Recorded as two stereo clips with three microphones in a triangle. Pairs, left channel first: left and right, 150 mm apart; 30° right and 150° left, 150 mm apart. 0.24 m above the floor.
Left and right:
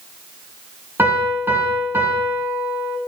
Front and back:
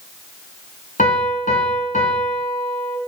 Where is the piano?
15° right, 2.5 m.